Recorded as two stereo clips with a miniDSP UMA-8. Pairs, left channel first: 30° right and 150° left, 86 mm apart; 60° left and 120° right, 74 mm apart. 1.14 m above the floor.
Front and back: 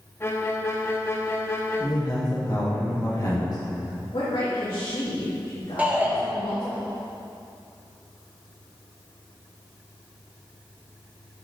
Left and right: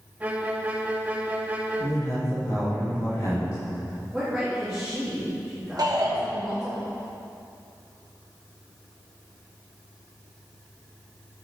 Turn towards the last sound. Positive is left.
turn(degrees=-140)